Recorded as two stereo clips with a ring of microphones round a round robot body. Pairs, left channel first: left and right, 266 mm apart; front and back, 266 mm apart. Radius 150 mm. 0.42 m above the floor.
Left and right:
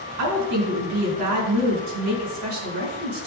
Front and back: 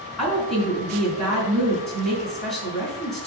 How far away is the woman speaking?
About 4 m.